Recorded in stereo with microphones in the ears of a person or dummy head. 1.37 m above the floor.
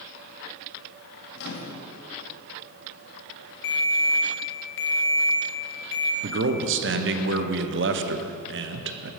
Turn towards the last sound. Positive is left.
turn(degrees=-55)  # may be behind; listen again after turning